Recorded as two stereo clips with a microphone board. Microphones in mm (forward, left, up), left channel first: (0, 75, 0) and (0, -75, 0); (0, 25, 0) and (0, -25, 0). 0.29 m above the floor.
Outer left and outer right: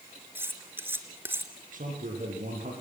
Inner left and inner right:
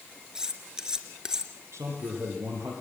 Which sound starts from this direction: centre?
Cutlery clinking, at 0.3 s.